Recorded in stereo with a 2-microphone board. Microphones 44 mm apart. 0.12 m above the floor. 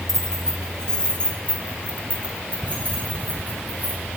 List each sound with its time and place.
0.1 s keys jangling: 5° left (ahead or behind), 3 m; by 4.0 s 40° left (ahead or behind), 7.5 m